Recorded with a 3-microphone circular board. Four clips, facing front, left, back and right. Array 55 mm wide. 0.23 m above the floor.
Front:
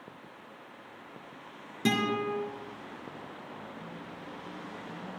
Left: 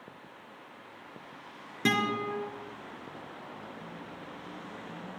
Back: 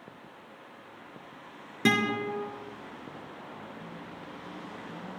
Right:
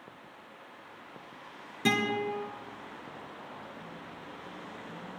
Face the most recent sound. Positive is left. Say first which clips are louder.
# even, back 2 dB
turn(degrees=155)